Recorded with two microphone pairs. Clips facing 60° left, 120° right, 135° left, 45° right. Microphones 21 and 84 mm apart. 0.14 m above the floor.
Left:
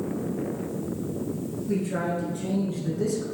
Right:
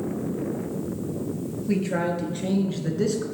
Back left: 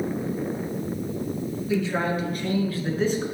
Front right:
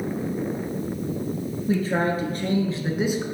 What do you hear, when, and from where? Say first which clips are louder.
1.7 s a man speaking: right 3 dB, front right 2 dB; 75° right, 2 m; by 3.2 s 130° right, 1.2 m